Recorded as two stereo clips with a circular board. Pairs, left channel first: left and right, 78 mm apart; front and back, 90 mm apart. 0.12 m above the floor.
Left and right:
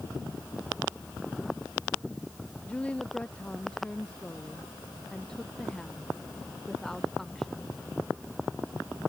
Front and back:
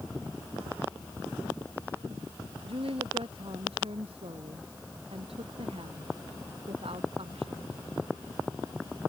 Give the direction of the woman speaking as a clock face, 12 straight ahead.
6 o'clock.